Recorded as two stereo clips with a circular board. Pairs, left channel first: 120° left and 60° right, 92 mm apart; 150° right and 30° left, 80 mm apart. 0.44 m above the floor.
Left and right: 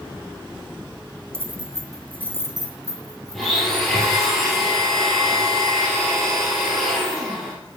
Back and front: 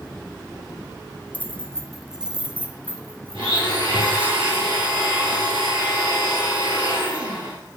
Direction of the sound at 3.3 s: 30° left.